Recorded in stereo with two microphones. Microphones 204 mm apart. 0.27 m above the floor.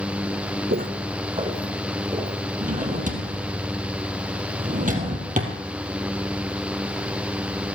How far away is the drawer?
About 3 m.